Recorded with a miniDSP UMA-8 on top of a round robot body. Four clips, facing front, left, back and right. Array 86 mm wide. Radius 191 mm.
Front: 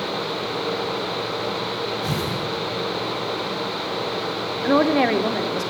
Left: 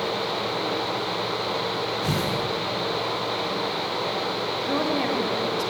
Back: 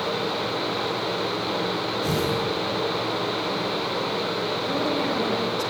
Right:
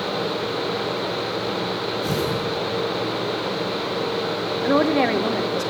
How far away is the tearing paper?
About 8 m.